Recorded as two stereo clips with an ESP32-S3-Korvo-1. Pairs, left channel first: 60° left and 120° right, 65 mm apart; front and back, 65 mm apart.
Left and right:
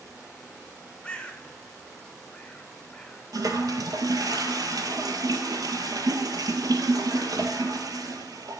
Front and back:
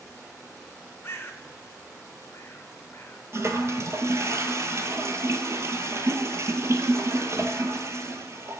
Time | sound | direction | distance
1.0 | a bird | 5° right | 0.9 m
3.3 | a toilet flushing | 135° right | 0.9 m